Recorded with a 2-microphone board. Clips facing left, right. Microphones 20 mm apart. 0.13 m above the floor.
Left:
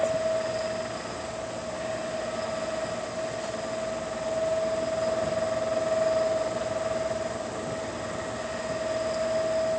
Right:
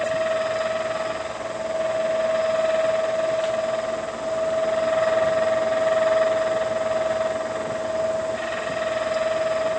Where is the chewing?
No chewing in this recording.